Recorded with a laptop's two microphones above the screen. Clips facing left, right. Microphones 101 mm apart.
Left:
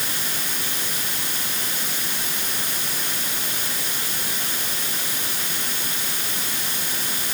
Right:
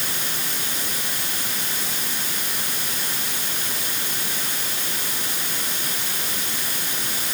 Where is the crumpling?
No crumpling in this recording.